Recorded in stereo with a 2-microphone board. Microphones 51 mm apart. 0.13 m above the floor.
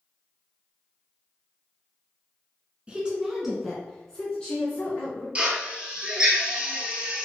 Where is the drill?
20° right (ahead or behind), 1.2 m.